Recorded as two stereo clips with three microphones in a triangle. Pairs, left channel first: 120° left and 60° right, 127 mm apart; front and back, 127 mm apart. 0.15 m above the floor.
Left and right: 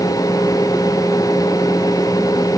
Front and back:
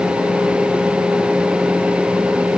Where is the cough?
I don't hear a cough.